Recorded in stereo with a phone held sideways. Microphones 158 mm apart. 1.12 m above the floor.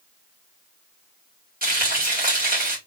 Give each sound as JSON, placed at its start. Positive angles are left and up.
{"t": 1.6, "sound": "frying", "side_deg": -65, "distance_m": 1.9}